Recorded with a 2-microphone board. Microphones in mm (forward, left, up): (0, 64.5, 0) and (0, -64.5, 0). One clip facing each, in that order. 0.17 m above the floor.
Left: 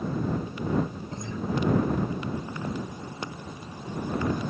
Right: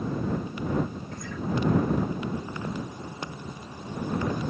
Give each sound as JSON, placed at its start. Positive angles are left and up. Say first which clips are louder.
{"t": 1.1, "sound": "a guitar", "louder": "left 1 dB", "side_deg": 20}